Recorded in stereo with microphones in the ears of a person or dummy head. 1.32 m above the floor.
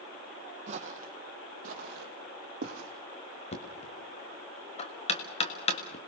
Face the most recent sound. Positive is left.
turn(degrees=25)  # may be behind; listen again after turning